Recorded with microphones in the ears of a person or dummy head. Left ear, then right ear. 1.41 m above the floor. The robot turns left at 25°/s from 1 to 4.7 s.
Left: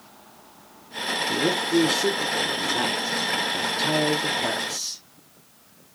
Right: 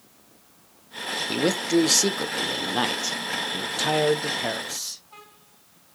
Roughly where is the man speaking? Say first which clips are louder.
Right 1 dB; right.